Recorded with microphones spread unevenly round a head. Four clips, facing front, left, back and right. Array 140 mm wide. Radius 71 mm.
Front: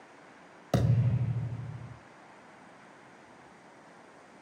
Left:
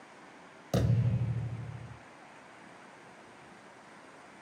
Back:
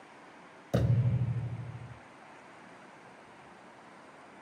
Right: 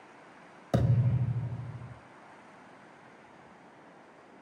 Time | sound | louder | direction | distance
0.7 | a thud | right 2 dB, front 1 dB | 25° right | 1.8 m